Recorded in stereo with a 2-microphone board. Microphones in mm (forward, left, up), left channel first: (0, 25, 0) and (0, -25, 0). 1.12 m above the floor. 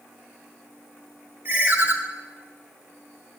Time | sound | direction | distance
1.4 | a ringtone | 40° right (ahead or behind) | 1.4 m